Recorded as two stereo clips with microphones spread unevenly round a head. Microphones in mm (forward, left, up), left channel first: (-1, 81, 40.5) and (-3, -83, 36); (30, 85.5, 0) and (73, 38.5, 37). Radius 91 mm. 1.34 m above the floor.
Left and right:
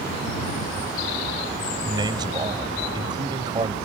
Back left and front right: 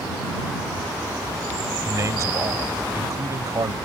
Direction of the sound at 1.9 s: 25° right.